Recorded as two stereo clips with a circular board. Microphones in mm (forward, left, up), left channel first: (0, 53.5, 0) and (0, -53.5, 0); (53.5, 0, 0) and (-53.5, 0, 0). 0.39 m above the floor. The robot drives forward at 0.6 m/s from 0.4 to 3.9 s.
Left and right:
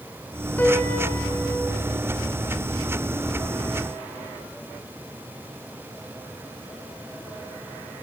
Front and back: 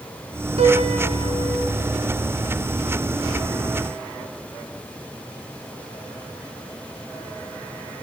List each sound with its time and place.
0.6 s a piano: 165° left, 4.5 m